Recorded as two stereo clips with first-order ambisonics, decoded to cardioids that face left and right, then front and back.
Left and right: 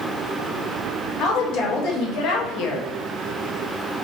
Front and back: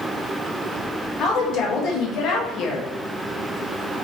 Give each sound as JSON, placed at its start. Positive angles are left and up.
{"t": 1.2, "sound": "a woman speaking", "azimuth_deg": 50, "distance_m": 1.7}